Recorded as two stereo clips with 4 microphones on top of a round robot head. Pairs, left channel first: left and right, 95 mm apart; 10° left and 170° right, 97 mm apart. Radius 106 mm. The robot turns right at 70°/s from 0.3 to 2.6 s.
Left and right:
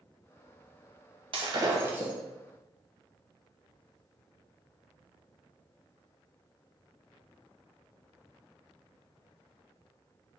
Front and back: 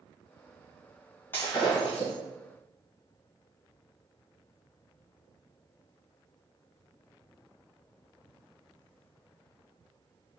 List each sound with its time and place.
1.3 s breaking glass: 65° right, 1.0 m; by 2.1 s 10° right, 1.0 m